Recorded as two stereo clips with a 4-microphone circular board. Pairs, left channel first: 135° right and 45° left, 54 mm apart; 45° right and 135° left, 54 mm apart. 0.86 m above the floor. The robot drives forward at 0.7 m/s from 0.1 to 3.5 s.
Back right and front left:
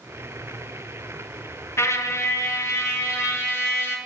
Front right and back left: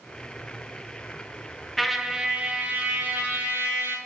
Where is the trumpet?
130° right, 0.6 m; by 4.0 s 165° right, 1.6 m.